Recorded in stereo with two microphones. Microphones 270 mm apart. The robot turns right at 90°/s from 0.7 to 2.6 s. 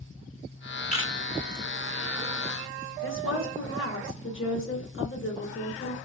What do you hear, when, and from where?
0.9 s a camera shutter: 25° left (ahead or behind), 0.7 m; by 1.1 s 10° left (ahead or behind), 0.7 m
3.0 s a woman speaking: 50° left (ahead or behind), 1.0 m